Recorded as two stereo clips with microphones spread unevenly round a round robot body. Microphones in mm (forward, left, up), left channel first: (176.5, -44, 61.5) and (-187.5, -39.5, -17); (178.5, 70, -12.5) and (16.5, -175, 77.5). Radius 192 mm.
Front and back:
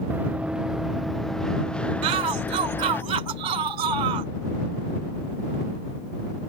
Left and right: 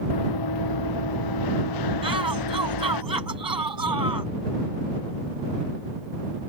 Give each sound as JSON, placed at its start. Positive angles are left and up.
{"t": 0.1, "sound": "running footsteps", "azimuth_deg": 90}
{"t": 2.0, "sound": "a shout", "azimuth_deg": 155}